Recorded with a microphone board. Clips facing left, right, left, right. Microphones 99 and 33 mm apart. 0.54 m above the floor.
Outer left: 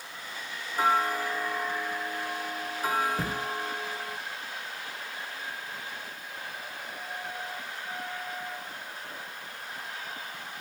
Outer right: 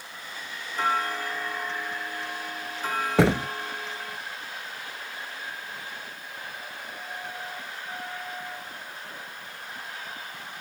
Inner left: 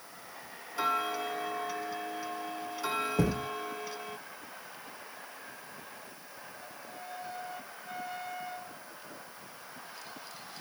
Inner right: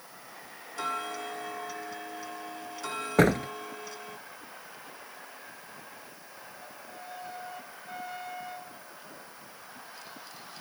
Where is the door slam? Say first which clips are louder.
Outer right 11 dB, inner right 12 dB; 85° right.